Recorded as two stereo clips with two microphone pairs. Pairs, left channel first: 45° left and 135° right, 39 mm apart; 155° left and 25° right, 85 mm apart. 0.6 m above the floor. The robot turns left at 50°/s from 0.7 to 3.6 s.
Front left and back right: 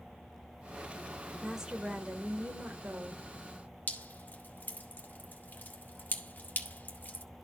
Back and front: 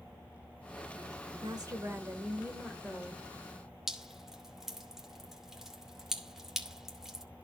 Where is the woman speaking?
50° right, 2 m; by 3.2 s 140° right, 2 m.